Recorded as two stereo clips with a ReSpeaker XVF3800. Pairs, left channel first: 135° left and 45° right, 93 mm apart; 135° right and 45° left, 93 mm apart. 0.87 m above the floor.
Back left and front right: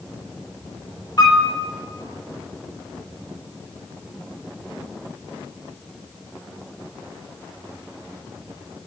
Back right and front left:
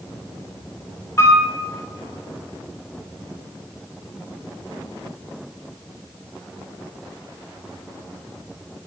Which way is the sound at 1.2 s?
170° left.